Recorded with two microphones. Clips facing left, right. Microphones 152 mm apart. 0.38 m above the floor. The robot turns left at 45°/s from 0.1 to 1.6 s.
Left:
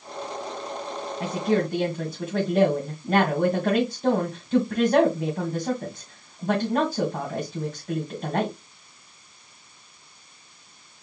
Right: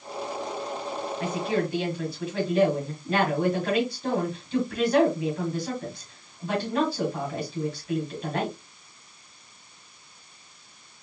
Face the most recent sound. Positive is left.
turn(degrees=45)  # may be behind; listen again after turning